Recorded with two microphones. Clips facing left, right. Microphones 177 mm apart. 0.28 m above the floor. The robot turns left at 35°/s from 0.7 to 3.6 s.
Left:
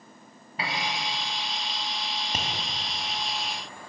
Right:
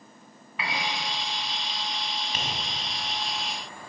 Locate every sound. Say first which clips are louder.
0.6 s a piano: even; 35° left (ahead or behind), 0.8 m; by 1.0 s 25° left (ahead or behind), 0.8 m
2.3 s tapping: left 3 dB; 45° left (ahead or behind), 0.9 m; by 2.5 s 50° left (ahead or behind), 0.9 m